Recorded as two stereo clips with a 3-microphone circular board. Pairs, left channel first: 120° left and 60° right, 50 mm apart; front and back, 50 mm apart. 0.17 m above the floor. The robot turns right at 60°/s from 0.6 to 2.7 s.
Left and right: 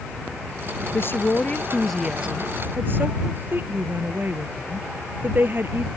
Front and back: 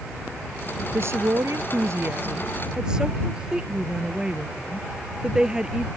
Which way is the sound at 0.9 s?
150° left.